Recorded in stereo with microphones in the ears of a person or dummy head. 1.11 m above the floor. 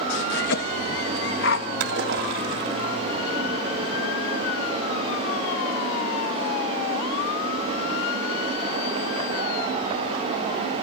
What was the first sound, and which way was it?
A cough, 70° left (ahead or behind).